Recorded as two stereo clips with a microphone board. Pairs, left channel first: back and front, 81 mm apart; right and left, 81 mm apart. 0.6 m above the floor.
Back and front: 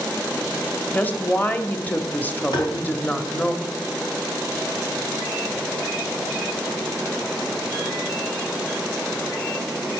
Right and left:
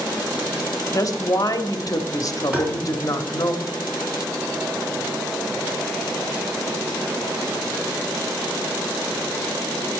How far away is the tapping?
About 3 m.